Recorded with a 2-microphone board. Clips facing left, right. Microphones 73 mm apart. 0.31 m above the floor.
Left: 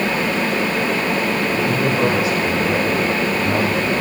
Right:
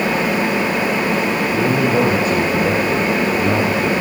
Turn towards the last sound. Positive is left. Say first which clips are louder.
# right 3 dB
turn(degrees=-40)  # may be behind; listen again after turning